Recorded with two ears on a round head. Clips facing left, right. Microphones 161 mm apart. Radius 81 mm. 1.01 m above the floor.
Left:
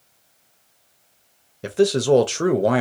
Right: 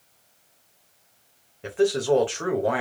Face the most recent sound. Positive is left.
turn(degrees=45)  # may be behind; listen again after turning